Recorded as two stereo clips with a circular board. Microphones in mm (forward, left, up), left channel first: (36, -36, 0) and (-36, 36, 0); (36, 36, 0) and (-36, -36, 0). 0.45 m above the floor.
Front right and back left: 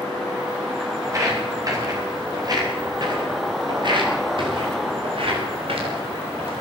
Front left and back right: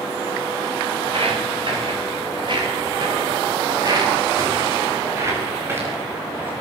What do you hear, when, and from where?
1.0 s footsteps: 165° right, 9.5 m; by 6.5 s 150° left, 8 m